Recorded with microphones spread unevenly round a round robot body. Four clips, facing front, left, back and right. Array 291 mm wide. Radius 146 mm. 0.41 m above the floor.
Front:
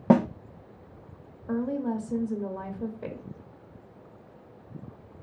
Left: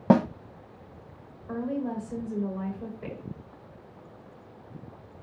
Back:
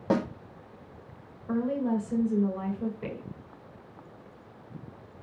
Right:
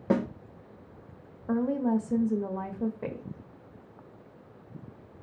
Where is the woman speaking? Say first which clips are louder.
Right 4 dB, back 1 dB; 80° right, 1.7 m.